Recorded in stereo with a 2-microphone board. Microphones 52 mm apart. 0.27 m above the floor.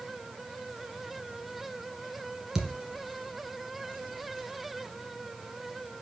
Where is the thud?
10° right (ahead or behind), 1.7 m.